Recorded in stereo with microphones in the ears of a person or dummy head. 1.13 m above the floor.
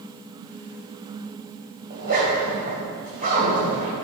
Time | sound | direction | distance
1.9 | a zipper | 50° right (ahead or behind) | 3 m